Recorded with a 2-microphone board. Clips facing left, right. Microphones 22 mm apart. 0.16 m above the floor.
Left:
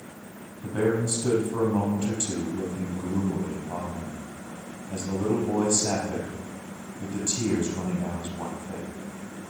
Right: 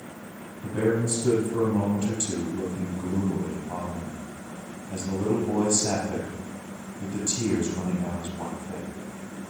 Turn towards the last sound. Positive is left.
turn(degrees=25)  # may be behind; listen again after turning